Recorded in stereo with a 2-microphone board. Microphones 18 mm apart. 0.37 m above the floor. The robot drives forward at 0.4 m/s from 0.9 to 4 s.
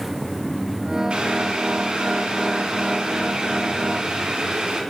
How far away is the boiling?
About 4.5 m.